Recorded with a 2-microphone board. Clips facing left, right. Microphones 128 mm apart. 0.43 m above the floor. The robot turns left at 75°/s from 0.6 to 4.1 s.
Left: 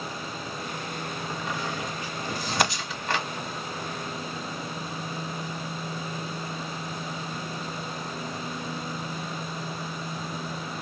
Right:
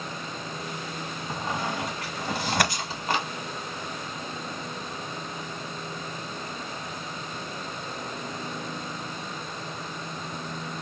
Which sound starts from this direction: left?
Breaking glass, at 2.6 s.